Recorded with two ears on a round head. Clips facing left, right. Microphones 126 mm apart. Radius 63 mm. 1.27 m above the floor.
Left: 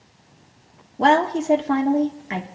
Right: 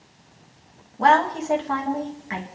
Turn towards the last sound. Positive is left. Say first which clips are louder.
# left 1 dB
turn(degrees=35)  # may be behind; listen again after turning